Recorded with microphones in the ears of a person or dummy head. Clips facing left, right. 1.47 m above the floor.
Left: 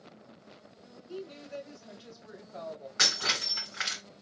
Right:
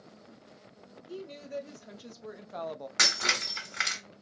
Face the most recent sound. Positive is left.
turn(degrees=-40)  # may be behind; listen again after turning